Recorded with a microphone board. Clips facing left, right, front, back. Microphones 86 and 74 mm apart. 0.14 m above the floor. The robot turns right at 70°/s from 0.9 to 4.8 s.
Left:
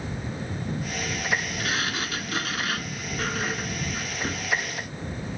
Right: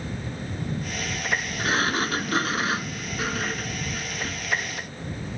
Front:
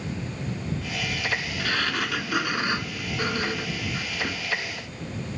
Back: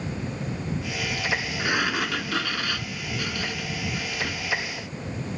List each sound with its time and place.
1.6 s a sliding door: 125° right; by 4.5 s 85° left